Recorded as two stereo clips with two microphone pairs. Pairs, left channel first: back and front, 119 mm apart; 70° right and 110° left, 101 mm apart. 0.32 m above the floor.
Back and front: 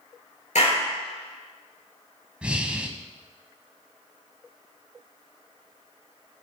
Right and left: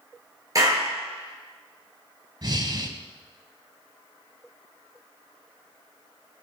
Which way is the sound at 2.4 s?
75° left.